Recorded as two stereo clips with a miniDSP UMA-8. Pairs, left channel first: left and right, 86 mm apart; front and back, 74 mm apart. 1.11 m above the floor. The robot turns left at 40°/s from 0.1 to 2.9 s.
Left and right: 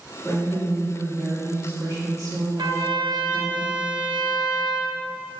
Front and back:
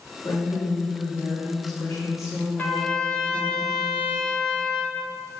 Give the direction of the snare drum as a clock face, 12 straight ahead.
I don't hear a snare drum.